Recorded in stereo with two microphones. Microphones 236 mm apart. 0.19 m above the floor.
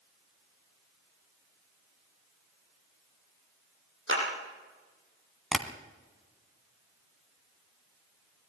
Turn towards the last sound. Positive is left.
turn(degrees=0)  # may be behind; listen again after turning